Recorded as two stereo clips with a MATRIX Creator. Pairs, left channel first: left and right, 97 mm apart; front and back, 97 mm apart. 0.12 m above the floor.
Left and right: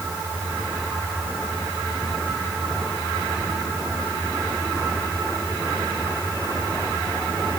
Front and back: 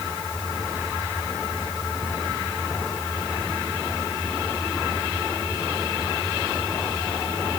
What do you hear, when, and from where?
Only background noise.